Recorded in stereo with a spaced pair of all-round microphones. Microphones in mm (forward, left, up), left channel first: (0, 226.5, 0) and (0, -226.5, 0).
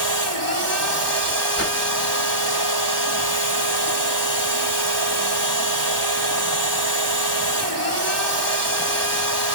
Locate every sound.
0.0 s a machine running: 55° right (ahead or behind), 1.9 m
1.6 s a whoosh: 30° left (ahead or behind), 1.1 m